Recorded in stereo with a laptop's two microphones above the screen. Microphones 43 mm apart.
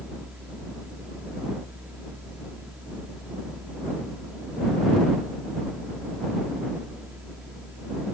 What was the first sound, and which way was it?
A fan, 35° right (ahead or behind).